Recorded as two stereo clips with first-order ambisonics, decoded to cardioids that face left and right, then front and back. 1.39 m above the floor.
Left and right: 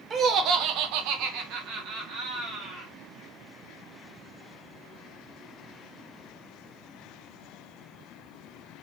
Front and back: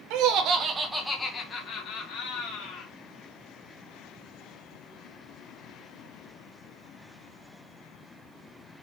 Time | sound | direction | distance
0.1 | laughter | 155° right | 1.1 m